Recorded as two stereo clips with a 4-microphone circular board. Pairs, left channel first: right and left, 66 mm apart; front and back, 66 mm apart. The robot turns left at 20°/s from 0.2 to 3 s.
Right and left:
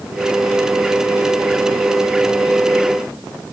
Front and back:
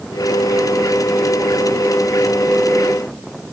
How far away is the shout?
No shout in this recording.